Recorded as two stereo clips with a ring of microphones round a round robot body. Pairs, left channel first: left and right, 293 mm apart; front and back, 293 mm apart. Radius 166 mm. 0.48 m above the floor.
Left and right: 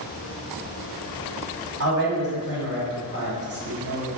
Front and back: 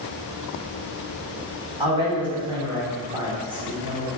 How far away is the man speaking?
About 1.8 m.